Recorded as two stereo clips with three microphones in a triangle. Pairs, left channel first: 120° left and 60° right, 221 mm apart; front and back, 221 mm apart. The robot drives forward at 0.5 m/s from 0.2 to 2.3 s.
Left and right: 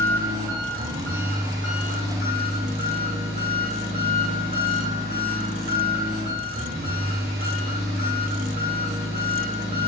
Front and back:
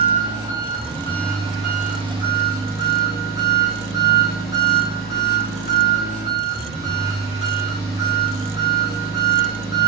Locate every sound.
0.0 s an engine running: 70° right, 1.9 m; by 9.9 s 105° right, 1.8 m